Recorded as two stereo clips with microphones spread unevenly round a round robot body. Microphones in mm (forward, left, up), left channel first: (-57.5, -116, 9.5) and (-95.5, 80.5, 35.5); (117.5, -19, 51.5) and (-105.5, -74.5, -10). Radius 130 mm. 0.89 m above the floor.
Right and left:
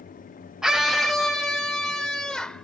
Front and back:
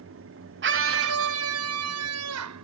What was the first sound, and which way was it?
A scream, 170° right.